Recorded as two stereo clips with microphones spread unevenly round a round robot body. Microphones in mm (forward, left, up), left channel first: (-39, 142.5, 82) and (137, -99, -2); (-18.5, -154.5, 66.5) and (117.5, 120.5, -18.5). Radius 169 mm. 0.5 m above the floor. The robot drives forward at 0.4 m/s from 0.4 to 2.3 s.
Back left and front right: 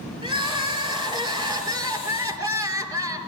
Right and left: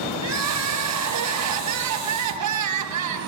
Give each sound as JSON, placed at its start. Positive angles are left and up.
{"t": 0.2, "sound": "crying", "azimuth_deg": 25, "distance_m": 4.0}